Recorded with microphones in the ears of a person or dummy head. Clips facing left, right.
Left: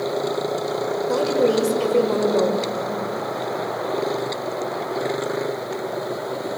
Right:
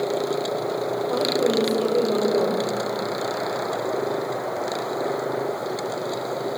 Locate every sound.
1.1 s a woman speaking: 85° left, 5 m